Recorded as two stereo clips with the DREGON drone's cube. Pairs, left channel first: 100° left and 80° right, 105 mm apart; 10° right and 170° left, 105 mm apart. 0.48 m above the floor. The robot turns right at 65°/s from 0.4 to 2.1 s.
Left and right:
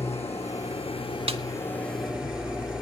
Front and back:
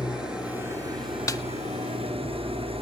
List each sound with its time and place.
0.0 s an engine running: 85° left, 4 m; by 2.8 s 160° right, 4 m
1.3 s a snare drum: 70° right, 0.5 m; by 1.4 s 60° right, 0.5 m